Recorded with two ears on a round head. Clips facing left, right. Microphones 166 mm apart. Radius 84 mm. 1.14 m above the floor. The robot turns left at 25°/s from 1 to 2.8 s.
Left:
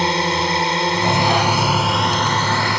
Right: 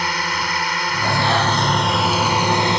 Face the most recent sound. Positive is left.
turn(degrees=-20)